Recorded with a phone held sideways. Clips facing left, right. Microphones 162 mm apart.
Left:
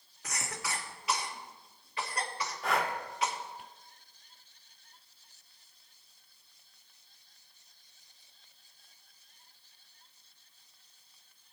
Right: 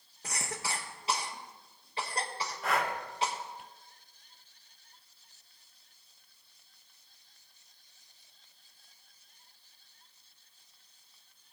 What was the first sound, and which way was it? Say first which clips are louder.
A cough: right 1 dB; 30° right (ahead or behind).